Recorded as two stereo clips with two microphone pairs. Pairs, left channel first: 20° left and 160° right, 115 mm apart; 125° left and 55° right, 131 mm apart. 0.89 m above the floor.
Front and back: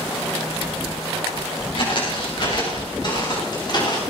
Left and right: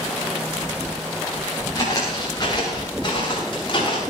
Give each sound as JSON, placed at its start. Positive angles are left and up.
{"t": 1.8, "sound": "footsteps", "azimuth_deg": 60, "distance_m": 6.5}